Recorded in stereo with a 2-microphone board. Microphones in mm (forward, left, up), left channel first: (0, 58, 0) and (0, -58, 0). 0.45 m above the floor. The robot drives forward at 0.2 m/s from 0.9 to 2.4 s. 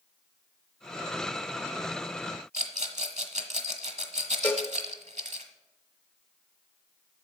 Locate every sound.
2.5 s a rattle: 75° right (ahead or behind), 1.2 m
4.4 s a cowbell: 10° left (ahead or behind), 0.9 m